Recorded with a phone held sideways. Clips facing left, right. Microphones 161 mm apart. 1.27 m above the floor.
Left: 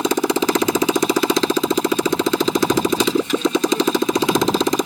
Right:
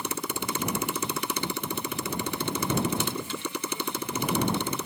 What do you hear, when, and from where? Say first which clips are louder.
0.0 s a motorcycle: left 16 dB; 85° left